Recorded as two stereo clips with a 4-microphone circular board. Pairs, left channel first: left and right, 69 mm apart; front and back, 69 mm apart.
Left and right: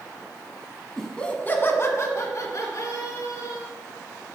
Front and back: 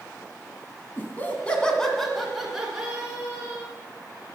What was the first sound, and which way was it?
Laughter, 10° left.